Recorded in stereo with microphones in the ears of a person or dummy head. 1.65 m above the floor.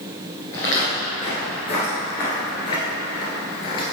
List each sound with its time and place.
0.5 s footsteps: 20° left (ahead or behind), 1.8 m; by 3.9 s 30° left (ahead or behind), 2 m